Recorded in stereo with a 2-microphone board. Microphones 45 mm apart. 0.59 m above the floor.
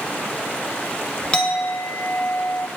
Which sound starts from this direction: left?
A clink, at 1.3 s.